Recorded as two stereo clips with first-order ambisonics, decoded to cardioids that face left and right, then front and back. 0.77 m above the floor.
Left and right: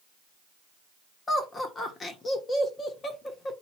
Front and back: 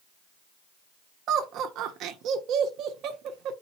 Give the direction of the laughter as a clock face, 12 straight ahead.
7 o'clock.